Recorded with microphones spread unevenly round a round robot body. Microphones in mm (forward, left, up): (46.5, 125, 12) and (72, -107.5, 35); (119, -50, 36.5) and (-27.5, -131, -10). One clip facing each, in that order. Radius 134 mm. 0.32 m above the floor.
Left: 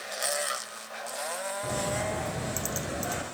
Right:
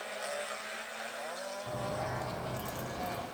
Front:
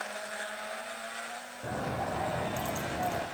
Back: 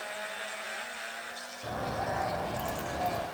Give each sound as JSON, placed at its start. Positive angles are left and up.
{"t": 1.6, "sound": "a bird", "azimuth_deg": 100, "distance_m": 9.5}